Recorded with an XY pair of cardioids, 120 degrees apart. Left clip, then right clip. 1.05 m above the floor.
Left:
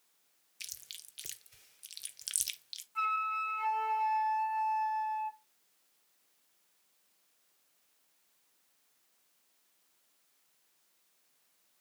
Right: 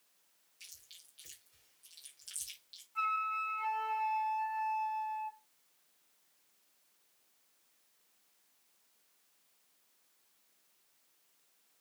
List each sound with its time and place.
0.6 s chewing: 70° left, 0.8 m
3.0 s a flute: 20° left, 1.0 m